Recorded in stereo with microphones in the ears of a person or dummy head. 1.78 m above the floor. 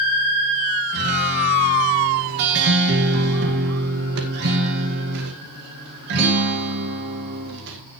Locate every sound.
0.9 s a guitar: 70° right (ahead or behind), 2.0 m